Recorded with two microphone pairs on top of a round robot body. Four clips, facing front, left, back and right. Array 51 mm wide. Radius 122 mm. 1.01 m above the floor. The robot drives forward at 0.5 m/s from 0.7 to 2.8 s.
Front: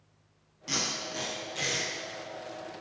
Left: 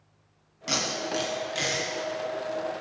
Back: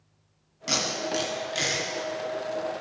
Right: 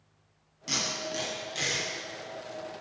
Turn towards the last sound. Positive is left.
turn(degrees=155)